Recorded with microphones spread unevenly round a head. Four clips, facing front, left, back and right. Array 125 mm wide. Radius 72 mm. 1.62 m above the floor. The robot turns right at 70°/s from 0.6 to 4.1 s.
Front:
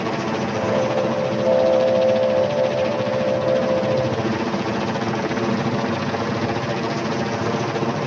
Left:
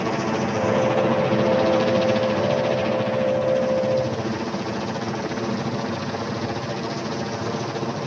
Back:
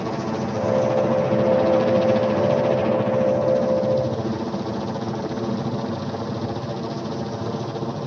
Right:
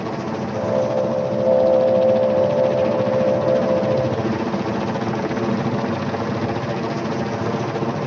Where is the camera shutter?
No camera shutter in this recording.